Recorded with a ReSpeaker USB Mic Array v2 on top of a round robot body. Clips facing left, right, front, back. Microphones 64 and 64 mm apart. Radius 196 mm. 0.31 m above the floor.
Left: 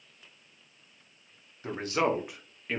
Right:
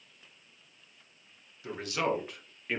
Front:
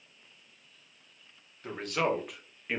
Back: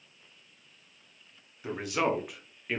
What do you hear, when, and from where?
1.6 s a man speaking: 105° left, 1.7 m; by 2.8 s 60° right, 1.4 m